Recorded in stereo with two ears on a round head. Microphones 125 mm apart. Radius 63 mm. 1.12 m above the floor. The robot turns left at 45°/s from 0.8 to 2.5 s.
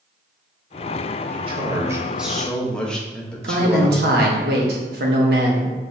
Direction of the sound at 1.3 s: 135° right.